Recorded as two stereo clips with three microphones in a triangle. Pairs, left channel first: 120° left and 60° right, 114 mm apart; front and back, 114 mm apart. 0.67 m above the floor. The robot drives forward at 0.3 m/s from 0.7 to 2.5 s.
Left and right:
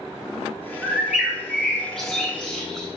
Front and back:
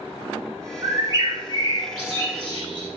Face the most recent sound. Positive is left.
turn(degrees=-160)